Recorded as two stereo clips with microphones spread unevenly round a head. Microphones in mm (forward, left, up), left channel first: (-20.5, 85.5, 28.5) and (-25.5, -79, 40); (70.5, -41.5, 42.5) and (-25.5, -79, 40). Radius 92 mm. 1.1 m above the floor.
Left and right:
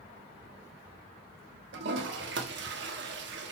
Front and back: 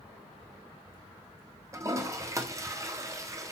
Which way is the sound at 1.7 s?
100° right.